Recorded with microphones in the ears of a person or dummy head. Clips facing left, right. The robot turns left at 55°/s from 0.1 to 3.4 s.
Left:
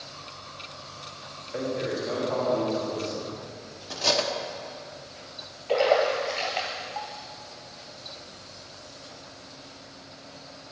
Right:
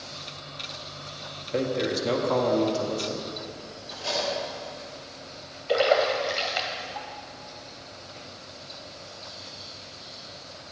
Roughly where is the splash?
Centre.